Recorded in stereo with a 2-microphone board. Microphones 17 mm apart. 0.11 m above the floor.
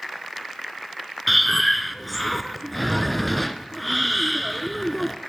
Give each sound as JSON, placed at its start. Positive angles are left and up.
{"t": 1.3, "sound": "breathing", "side_deg": 0, "distance_m": 0.6}